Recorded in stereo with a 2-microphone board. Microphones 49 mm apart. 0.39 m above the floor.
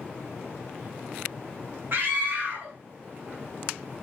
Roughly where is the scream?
Right.